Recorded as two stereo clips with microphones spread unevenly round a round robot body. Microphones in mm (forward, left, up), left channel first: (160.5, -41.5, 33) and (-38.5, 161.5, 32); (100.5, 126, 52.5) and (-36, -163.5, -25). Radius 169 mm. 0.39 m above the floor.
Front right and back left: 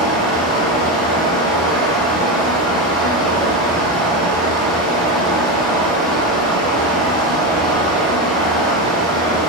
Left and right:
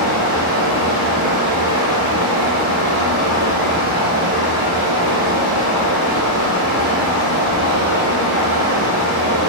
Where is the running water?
70° right, 1.7 m.